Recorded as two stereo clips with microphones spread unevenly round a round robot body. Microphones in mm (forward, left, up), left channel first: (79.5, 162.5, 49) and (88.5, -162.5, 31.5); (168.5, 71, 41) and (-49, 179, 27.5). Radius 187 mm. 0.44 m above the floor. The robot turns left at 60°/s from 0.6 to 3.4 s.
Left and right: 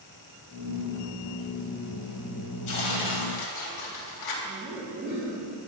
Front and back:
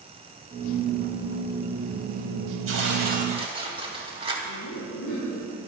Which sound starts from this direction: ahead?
Laughter, at 4.5 s.